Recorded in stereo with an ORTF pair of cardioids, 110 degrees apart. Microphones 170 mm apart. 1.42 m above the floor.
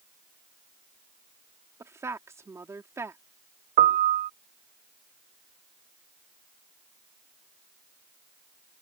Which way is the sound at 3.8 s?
50° right.